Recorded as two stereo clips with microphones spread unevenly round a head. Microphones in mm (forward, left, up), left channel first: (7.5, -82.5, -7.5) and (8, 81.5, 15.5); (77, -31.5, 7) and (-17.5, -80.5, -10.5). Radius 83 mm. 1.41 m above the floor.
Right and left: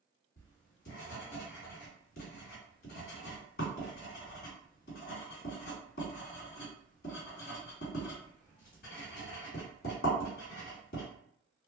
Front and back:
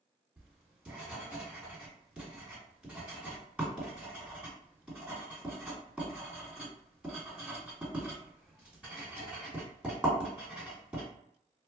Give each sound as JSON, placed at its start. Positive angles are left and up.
{"t": 0.4, "sound": "writing", "azimuth_deg": -70, "distance_m": 2.0}